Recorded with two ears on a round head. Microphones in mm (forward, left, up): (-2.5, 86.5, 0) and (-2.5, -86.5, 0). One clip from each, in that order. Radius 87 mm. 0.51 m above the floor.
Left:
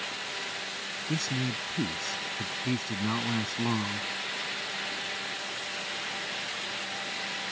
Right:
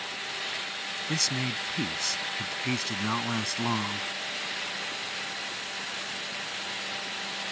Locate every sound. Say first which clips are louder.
1.1 s a man speaking: right 4 dB; 55° right (ahead or behind)